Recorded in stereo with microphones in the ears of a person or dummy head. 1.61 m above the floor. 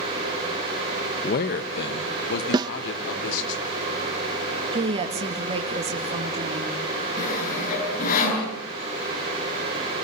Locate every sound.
1.2 s a man speaking: 50° left (ahead or behind), 1.2 m; by 3.5 s 70° left (ahead or behind), 4.5 m
2.5 s a snare drum: 25° right (ahead or behind), 0.5 m
4.7 s a woman speaking: 30° right (ahead or behind), 2 m
7.2 s sawing: 45° left (ahead or behind), 8 m